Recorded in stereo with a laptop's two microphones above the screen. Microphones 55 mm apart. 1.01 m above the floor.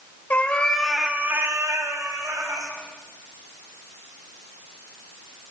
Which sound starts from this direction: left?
A cat meowing, at 0.3 s.